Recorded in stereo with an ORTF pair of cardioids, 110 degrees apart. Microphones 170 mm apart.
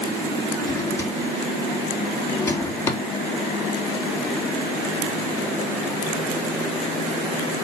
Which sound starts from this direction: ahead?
A drawer, at 0.6 s.